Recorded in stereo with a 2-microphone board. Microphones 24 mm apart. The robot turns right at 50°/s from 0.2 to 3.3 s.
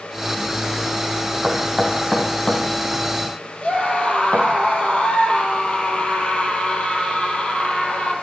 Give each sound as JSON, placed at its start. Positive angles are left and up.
{"t": 1.4, "sound": "knocking", "side_deg": -25, "distance_m": 5.0}
{"t": 3.6, "sound": "a scream", "side_deg": 45, "distance_m": 4.5}